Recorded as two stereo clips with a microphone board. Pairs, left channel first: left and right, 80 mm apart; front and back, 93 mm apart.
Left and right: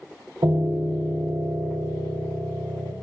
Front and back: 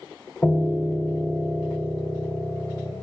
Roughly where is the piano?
Ahead right.